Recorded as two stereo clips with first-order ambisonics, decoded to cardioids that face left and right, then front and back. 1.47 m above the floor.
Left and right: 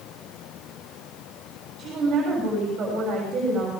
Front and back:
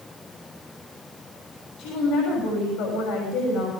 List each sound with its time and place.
1.8 s a woman speaking: 30° right, 6.5 m